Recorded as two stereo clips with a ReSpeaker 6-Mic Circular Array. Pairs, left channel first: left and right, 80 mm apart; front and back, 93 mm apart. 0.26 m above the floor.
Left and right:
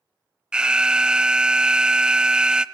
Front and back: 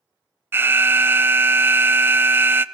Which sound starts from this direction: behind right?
An alarm, at 0.5 s.